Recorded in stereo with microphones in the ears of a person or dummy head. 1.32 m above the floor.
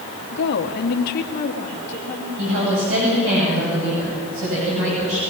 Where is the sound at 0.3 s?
65° left (ahead or behind), 1.5 m; by 2.3 s 35° left (ahead or behind), 2.5 m.